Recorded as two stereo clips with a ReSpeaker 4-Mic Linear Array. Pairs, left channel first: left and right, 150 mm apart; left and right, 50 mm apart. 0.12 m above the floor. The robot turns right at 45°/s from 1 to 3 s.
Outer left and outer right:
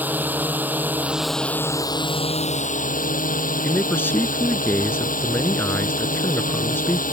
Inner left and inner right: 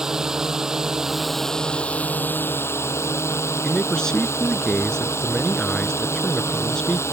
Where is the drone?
10° right; by 7.1 s 80° left.